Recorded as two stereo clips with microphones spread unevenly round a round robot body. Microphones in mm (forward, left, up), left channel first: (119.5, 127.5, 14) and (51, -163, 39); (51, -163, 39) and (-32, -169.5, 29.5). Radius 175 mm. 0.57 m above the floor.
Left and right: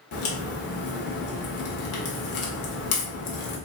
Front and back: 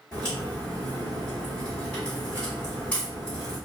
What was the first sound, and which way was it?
A crack, 85° left.